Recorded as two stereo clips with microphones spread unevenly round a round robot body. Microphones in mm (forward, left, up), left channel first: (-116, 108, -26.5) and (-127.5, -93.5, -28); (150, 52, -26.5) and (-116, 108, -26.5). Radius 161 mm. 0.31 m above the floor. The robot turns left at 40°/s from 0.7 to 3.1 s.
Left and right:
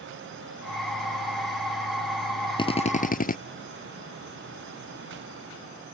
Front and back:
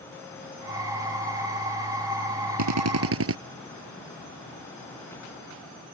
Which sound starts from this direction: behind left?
A drill, at 2.6 s.